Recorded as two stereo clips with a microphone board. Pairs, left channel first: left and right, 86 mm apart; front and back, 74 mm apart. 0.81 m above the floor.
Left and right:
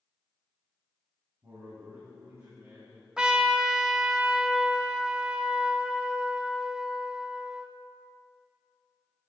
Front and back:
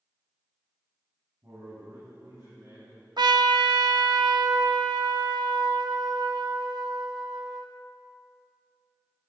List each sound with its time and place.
1.4 s a man speaking: 135° right, 5 m
3.2 s a trumpet: 170° right, 0.7 m